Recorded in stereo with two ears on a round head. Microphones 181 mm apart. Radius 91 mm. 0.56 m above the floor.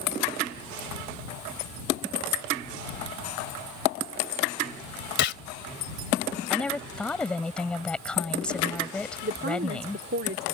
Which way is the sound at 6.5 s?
5° left (ahead or behind).